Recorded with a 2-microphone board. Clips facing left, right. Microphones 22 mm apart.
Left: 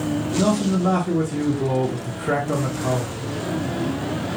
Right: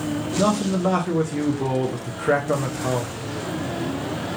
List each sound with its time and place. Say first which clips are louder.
0.4 s a man speaking: even; 20° right (ahead or behind), 0.5 m